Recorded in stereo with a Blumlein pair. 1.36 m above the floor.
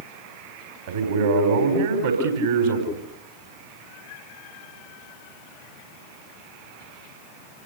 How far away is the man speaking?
About 4 m.